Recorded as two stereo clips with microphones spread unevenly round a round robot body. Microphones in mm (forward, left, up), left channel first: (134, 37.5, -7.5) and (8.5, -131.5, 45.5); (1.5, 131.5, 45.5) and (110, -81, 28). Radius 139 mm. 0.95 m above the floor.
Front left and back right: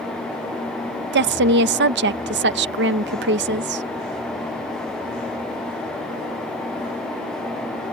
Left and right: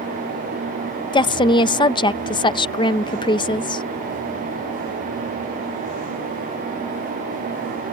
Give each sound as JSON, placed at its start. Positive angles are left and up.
{"t": 1.1, "sound": "a woman speaking", "azimuth_deg": -170}